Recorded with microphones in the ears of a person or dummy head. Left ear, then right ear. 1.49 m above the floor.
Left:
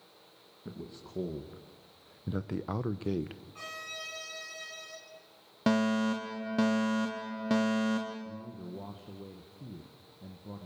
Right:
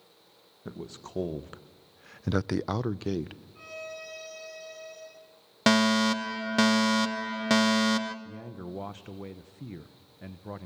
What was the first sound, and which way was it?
A man speaking, 35° right (ahead or behind).